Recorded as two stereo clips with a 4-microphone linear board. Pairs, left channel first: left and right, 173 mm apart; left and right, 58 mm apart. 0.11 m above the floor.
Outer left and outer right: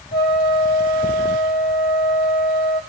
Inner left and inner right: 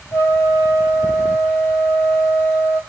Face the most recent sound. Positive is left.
turn(degrees=70)  # may be behind; listen again after turning